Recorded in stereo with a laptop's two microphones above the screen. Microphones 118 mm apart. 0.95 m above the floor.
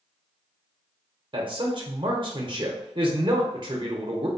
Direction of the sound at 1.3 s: 45° right (ahead or behind).